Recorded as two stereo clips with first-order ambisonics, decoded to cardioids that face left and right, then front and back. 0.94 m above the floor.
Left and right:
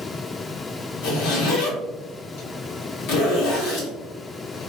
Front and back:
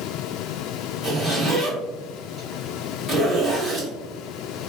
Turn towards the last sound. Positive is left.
turn(degrees=85)